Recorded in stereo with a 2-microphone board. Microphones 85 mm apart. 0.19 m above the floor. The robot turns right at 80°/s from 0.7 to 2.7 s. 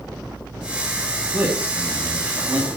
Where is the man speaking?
10° right (ahead or behind), 1.7 m; by 2.7 s 15° right (ahead or behind), 1.7 m.